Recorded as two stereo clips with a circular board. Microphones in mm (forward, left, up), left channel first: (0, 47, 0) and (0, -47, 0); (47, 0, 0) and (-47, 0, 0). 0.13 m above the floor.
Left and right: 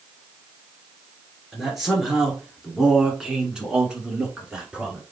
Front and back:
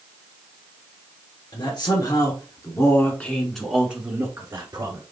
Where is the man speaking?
5° right, 2 m; by 5.0 s 170° right, 1.7 m.